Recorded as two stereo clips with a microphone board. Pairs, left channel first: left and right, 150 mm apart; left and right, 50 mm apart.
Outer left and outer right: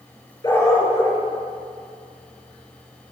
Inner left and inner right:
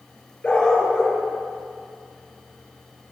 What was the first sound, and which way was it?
A dog barking, 20° left (ahead or behind).